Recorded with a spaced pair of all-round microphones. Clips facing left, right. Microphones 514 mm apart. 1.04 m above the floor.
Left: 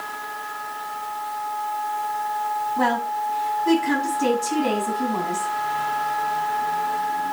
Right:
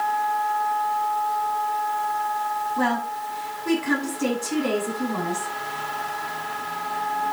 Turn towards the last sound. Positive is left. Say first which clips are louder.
# left 1 dB
turn(degrees=15)  # may be behind; listen again after turning